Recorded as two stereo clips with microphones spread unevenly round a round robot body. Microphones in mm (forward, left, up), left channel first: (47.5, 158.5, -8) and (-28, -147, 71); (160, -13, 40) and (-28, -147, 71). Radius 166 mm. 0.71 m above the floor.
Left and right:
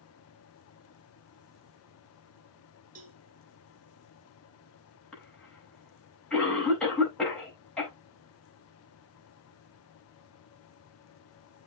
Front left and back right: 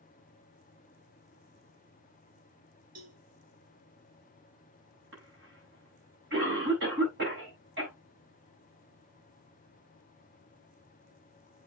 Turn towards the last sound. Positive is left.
turn(degrees=160)